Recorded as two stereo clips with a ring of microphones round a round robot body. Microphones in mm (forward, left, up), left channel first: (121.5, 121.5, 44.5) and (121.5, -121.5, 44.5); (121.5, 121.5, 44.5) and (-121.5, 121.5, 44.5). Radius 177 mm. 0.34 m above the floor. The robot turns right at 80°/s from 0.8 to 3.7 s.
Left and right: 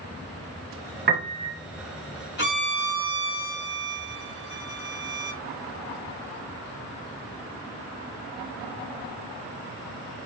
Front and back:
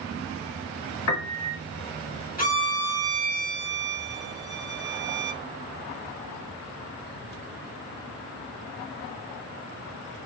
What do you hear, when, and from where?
1.1 s a piano: 35° right, 1.5 m; by 1.6 s 5° left, 1.5 m
2.4 s a violin: 50° left, 3 m; by 5.4 s 155° left, 3 m